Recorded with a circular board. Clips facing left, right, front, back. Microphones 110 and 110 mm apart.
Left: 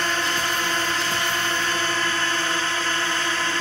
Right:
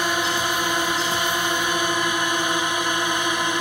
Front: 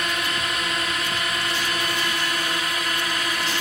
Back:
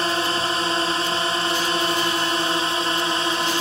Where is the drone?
155° right; by 3.6 s 150° right.